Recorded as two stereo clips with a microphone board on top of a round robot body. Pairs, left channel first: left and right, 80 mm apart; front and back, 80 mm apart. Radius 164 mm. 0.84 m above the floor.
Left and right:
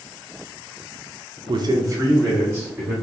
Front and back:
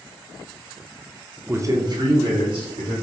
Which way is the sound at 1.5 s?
115° right.